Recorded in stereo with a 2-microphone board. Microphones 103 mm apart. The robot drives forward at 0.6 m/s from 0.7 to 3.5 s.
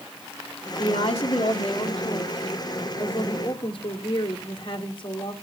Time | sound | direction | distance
0.8 | a woman speaking | 75° left (ahead or behind) | 2.5 m